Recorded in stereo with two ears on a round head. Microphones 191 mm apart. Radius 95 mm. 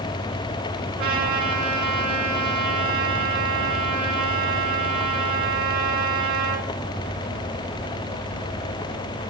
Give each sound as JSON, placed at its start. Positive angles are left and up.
{"t": 1.0, "sound": "a trumpet", "side_deg": -45, "distance_m": 2.5}